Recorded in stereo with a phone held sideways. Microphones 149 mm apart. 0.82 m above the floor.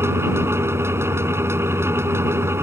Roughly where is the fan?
Centre.